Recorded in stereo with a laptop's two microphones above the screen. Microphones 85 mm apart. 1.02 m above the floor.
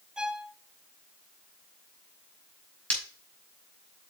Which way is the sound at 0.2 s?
5° right (ahead or behind).